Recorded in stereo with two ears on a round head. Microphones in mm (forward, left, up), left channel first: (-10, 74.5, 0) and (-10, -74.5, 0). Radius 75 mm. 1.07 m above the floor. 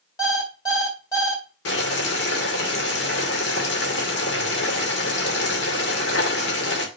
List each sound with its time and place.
0.2 s an alarm clock: 20° left (ahead or behind), 2.5 m
1.6 s boiling: 70° left (ahead or behind), 2 m